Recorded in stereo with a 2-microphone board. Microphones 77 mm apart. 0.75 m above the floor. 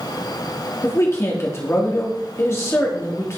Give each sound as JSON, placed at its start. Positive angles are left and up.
{"t": 0.8, "sound": "a man speaking", "side_deg": 35, "distance_m": 1.6}